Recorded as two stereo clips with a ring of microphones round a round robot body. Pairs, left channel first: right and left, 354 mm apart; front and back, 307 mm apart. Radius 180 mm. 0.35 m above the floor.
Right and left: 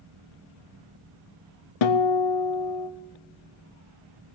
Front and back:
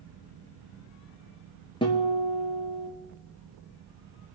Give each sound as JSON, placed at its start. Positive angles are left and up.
{"t": 1.8, "sound": "a guitar", "azimuth_deg": -75, "distance_m": 1.1}